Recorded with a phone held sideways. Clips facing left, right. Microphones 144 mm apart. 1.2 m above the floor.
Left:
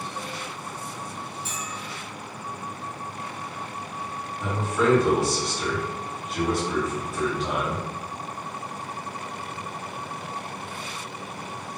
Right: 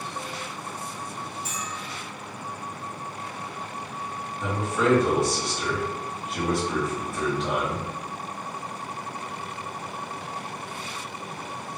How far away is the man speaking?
About 1.2 m.